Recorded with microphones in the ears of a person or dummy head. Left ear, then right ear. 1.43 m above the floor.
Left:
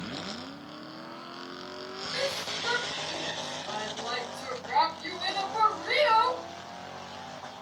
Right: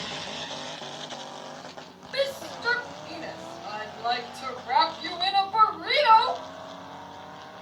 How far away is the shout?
About 6 m.